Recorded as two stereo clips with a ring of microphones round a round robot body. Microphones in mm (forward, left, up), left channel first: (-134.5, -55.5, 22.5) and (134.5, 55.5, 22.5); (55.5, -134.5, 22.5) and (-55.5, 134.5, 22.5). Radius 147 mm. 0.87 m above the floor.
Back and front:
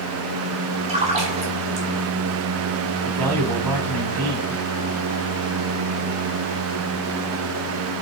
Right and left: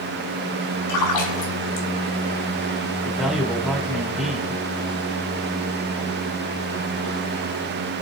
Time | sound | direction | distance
0.9 | a splash | 45° right | 2 m
3.0 | a man speaking | 25° left | 3.5 m